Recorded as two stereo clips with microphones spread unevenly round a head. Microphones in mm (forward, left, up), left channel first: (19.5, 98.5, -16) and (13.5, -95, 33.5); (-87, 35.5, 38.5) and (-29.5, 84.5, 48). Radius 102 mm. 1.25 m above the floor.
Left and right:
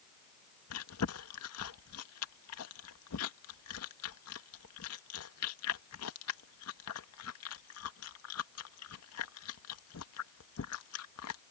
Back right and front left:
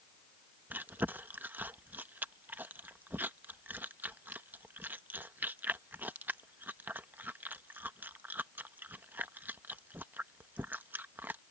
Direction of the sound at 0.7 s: 105° left.